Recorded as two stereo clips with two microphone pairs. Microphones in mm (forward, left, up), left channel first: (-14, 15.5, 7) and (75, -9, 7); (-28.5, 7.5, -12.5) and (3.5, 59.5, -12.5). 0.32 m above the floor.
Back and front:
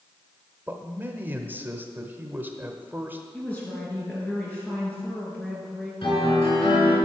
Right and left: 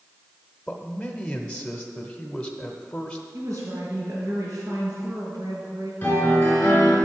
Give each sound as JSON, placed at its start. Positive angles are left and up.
{"t": 0.7, "sound": "a man speaking", "azimuth_deg": -50, "distance_m": 0.9}
{"t": 3.3, "sound": "a woman speaking", "azimuth_deg": 90, "distance_m": 4.5}
{"t": 6.0, "sound": "a piano", "azimuth_deg": 180, "distance_m": 3.5}